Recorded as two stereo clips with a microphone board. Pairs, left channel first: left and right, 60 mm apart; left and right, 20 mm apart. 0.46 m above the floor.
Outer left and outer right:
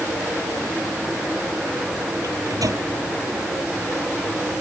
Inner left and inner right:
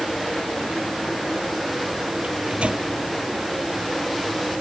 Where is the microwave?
85° right.